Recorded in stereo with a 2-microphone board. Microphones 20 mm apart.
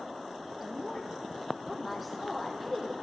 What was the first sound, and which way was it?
A woman speaking, centre (ahead or behind).